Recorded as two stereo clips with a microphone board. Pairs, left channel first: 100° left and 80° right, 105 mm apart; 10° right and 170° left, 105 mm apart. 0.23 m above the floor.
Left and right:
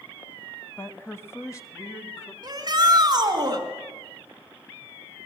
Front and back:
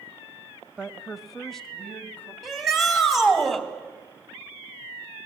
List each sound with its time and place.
0.8 s a woman speaking: 105° left, 1.1 m; by 2.3 s 60° left, 1.5 m
2.4 s a shout: 100° right, 2.5 m